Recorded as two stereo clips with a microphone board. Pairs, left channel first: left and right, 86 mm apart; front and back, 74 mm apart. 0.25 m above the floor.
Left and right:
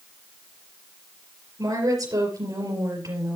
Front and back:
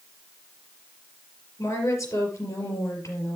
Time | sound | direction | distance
1.6 | a woman speaking | 45° right | 4.5 m